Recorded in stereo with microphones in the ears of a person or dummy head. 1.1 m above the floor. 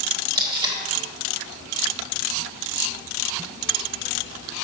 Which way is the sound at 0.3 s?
30° right (ahead or behind).